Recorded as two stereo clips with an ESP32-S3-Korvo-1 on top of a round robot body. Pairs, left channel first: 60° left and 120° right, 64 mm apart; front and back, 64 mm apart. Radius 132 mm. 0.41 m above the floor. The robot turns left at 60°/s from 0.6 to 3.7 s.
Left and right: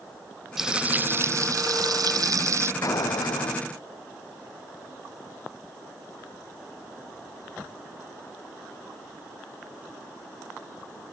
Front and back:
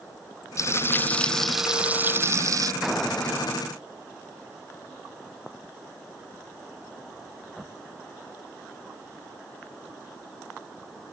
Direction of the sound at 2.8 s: 95° left.